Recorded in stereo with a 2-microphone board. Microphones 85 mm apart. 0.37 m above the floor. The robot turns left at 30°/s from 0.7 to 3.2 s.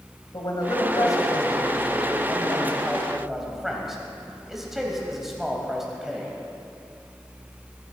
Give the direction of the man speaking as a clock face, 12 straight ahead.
10 o'clock.